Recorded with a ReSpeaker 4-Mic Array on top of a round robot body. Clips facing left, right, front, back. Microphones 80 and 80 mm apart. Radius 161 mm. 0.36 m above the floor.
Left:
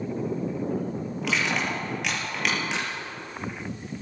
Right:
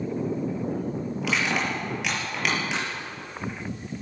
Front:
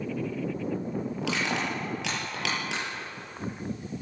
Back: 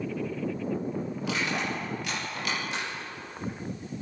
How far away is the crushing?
About 8 m.